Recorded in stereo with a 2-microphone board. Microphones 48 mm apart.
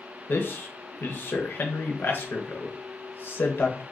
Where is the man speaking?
50° left (ahead or behind), 0.6 m.